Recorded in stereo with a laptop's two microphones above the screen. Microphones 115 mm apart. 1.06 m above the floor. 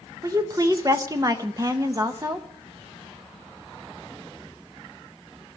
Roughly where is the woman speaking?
Right.